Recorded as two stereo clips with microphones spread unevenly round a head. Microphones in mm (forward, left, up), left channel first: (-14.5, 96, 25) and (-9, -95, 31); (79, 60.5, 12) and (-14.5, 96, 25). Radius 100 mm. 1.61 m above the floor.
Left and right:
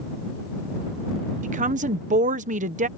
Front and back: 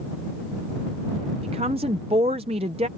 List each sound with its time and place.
1.4 s a woman speaking: 140° right